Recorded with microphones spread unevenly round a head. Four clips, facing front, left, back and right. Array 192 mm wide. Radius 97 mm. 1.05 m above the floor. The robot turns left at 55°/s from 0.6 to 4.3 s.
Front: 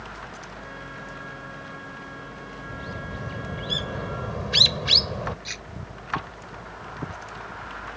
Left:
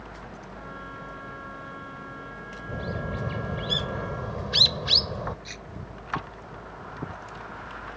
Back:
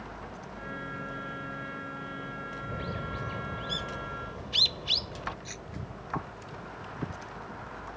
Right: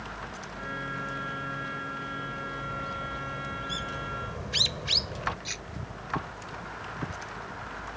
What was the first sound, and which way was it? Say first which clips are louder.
A bird: left 2 dB, front 1 dB; 110° left.